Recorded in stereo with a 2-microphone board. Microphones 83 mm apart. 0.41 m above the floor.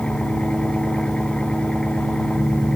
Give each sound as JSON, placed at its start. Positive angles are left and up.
{"t": 0.0, "sound": "an engine running", "side_deg": 15}